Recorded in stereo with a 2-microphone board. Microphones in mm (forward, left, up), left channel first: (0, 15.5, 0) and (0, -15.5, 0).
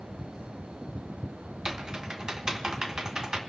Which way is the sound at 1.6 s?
20° right (ahead or behind).